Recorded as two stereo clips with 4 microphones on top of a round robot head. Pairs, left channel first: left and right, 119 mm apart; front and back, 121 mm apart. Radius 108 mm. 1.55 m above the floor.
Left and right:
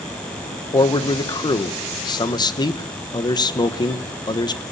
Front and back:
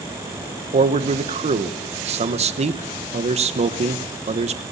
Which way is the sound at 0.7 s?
145° left.